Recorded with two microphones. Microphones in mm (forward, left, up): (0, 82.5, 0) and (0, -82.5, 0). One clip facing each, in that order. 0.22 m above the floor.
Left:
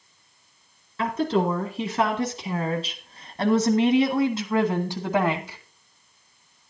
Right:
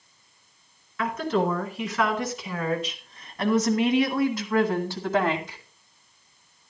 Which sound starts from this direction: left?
A woman speaking, at 1.0 s.